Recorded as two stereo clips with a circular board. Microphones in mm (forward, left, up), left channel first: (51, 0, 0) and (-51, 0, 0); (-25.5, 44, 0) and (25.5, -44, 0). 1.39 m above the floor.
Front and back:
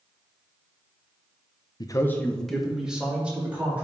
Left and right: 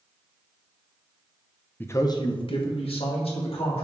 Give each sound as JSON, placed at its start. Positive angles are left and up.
{"t": 1.8, "sound": "a man speaking", "azimuth_deg": 45, "distance_m": 0.6}